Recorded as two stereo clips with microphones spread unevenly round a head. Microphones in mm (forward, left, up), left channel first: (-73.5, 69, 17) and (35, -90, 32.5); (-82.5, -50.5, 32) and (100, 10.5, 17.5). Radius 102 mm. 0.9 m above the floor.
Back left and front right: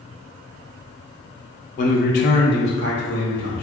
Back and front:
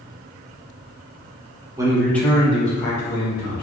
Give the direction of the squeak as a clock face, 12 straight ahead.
No squeak in this recording.